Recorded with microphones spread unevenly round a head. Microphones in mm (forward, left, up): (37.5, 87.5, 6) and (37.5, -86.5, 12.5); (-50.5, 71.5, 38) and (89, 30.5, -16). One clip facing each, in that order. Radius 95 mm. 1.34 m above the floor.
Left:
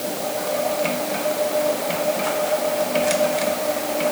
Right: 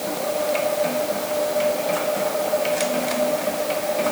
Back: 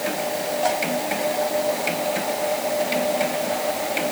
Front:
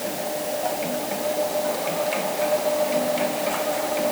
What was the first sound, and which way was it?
Only background noise.